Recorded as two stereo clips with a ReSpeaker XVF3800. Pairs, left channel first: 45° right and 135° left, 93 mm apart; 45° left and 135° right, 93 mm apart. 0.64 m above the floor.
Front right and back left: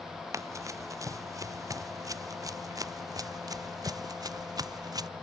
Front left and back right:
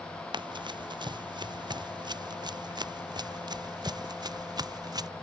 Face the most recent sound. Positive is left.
turn(degrees=180)